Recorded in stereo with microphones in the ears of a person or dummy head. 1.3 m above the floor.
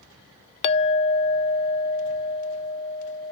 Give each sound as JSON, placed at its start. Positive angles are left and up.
{"t": 0.6, "sound": "a clink", "side_deg": 35, "distance_m": 0.5}